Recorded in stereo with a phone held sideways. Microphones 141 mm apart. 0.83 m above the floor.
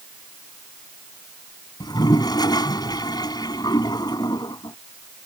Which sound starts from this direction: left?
A toilet flushing, at 1.8 s.